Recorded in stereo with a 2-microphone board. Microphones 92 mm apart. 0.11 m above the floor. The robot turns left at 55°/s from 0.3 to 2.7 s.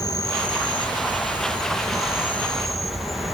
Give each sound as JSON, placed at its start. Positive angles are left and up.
{"t": 0.0, "sound": "an insect", "azimuth_deg": 130, "distance_m": 1.9}